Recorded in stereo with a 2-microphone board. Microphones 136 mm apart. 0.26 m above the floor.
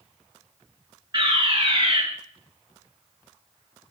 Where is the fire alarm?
35° right (ahead or behind), 5 m.